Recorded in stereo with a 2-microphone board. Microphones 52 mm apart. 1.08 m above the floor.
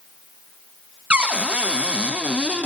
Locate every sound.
1.1 s a cupboard door: 20° right (ahead or behind), 0.6 m